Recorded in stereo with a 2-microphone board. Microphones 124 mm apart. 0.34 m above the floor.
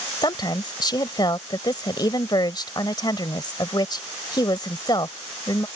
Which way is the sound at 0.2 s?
35° left (ahead or behind).